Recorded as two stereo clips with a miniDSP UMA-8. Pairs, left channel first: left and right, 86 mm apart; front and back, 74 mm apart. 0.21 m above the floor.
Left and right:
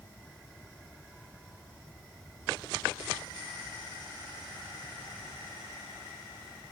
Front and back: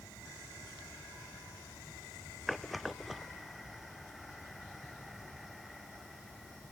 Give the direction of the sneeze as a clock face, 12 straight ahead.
No sneeze in this recording.